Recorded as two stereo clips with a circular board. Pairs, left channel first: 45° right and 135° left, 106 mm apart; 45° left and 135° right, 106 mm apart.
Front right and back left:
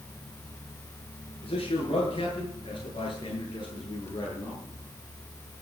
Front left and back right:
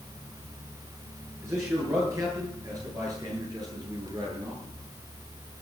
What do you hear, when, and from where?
1.4 s a man speaking: 75° right, 8 m; by 4.6 s 90° right, 8 m